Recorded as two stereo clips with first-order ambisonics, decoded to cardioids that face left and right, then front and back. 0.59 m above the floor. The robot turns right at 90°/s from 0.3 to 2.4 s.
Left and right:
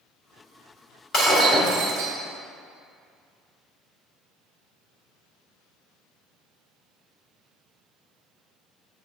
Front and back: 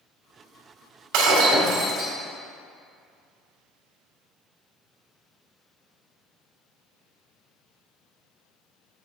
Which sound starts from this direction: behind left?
Breaking glass, at 1.1 s.